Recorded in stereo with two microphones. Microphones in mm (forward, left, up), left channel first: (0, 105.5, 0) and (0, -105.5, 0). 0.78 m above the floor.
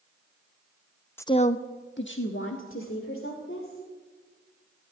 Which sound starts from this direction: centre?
A woman speaking, at 1.2 s.